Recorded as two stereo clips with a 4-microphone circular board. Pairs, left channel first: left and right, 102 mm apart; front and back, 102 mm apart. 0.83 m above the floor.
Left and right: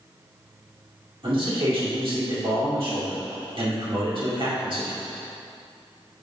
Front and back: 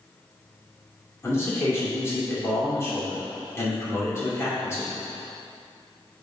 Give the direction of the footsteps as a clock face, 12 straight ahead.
I don't hear footsteps.